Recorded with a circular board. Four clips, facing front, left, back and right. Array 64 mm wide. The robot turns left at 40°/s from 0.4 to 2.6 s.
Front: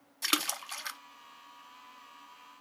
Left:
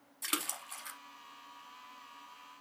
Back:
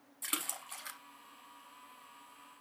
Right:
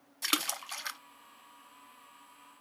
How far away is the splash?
About 0.7 m.